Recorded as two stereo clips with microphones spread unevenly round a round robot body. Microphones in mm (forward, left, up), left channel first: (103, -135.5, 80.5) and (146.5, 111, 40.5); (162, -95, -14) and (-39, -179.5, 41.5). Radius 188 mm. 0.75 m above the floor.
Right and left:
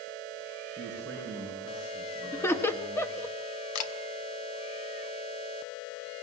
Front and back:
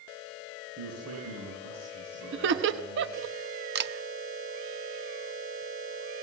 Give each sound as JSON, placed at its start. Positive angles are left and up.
{"t": 0.8, "sound": "a man speaking", "azimuth_deg": 175, "distance_m": 10.0}
{"t": 2.3, "sound": "laughter", "azimuth_deg": 170, "distance_m": 0.9}
{"t": 3.8, "sound": "a camera shutter", "azimuth_deg": -110, "distance_m": 1.1}